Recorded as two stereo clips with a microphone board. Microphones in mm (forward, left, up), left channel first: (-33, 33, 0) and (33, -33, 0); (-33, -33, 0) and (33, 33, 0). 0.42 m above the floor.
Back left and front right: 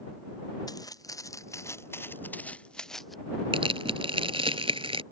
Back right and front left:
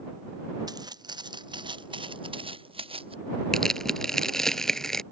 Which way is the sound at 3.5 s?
50° right.